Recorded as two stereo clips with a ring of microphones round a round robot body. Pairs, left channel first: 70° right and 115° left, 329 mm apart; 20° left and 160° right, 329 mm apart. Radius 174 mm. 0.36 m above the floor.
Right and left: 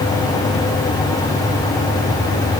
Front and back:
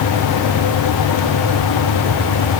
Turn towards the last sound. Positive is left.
No sound to turn to.